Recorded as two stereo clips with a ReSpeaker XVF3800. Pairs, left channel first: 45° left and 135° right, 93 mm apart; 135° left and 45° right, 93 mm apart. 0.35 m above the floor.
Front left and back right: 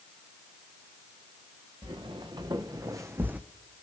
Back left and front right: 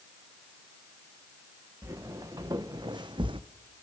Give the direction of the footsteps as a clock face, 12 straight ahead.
3 o'clock.